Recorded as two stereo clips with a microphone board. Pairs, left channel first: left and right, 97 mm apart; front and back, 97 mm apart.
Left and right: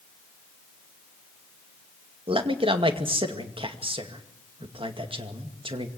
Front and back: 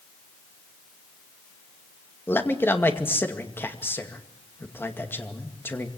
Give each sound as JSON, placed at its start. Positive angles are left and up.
{"t": 2.3, "sound": "a man speaking", "azimuth_deg": -65, "distance_m": 2.0}